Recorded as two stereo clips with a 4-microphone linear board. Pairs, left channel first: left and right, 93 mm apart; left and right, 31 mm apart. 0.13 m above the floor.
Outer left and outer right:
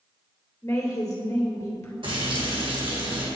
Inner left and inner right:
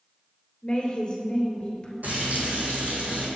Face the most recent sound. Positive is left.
turn(degrees=-65)  # may be behind; listen again after turning